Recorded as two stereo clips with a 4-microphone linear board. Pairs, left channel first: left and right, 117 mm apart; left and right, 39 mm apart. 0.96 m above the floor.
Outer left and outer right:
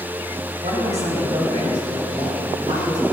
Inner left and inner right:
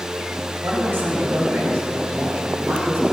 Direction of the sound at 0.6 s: 65° right (ahead or behind).